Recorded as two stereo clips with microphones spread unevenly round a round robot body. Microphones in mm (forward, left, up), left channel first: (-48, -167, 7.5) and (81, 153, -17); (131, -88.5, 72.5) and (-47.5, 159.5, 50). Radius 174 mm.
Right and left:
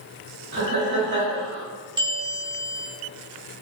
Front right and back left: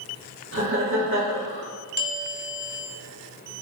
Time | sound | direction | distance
0.5 | laughter | 110° left | 1.7 m
2.0 | a bell | straight ahead | 0.7 m